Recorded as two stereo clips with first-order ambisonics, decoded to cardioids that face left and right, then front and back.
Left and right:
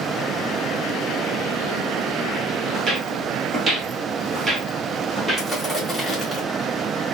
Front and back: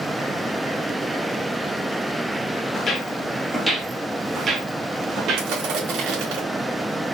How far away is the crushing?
About 2 m.